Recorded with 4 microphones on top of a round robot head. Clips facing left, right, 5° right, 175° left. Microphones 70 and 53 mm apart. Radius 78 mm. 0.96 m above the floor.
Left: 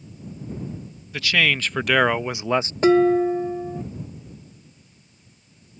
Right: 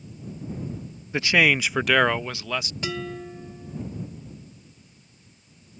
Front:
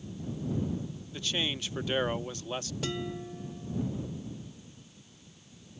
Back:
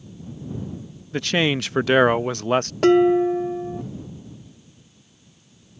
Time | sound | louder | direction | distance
1.1 | a man speaking | right 2 dB, back 13 dB | 155° right | ?
2.8 | dishes clattering | left 17 dB, back 21 dB | 140° left | ?